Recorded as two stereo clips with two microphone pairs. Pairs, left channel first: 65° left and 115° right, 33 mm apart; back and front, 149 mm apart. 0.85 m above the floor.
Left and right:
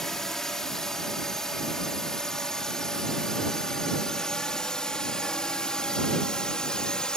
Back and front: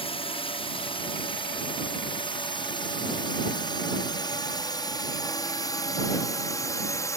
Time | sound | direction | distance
0.0 | a drone | 140° left | ?